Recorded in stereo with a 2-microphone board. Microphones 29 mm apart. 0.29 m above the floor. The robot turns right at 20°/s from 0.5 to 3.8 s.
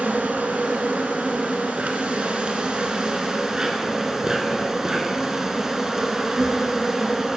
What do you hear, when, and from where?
0.0 s an insect: 85° right, 0.7 m; by 7.4 s 20° right, 0.7 m